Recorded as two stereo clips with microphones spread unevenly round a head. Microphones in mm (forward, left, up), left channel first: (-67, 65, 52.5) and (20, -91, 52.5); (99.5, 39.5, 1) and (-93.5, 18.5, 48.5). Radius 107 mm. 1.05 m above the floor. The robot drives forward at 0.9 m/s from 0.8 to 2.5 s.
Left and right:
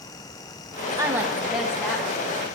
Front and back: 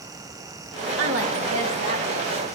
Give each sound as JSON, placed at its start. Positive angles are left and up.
{"t": 1.0, "sound": "a woman speaking", "azimuth_deg": -135, "distance_m": 1.0}